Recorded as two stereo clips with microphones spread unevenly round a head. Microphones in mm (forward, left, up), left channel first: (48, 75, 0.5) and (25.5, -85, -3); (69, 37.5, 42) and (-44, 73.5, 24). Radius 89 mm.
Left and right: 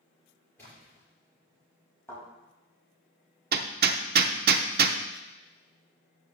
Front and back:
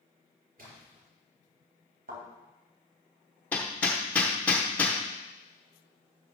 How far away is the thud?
About 4 m.